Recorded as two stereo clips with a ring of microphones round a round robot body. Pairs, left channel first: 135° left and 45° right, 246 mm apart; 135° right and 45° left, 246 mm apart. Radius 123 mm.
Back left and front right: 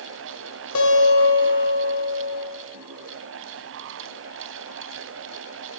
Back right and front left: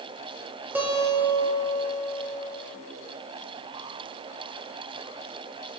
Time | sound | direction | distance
0.8 | a guitar | 125° left | 0.9 m